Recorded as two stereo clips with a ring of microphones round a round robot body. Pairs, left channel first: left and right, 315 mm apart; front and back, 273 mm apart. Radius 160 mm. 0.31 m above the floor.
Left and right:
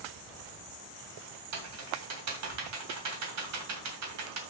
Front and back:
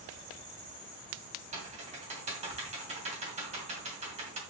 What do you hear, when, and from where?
1.5 s typing on a keyboard: 115° right, 2 m